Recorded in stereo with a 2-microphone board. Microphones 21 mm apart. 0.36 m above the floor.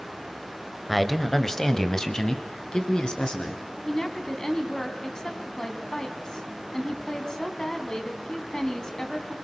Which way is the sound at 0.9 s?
Centre (ahead or behind).